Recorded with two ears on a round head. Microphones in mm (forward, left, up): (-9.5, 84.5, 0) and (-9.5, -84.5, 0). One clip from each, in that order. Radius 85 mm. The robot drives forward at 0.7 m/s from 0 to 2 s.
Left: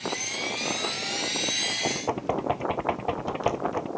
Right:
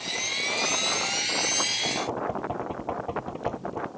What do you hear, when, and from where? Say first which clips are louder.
1.8 s knocking: even; 65° left (ahead or behind)